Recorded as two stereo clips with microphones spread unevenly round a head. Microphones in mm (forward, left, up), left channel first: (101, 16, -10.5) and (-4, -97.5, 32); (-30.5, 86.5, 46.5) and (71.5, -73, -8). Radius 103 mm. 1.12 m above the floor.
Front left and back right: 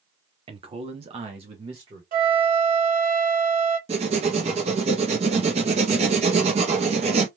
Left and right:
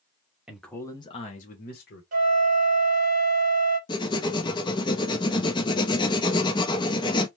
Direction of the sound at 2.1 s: 110° right.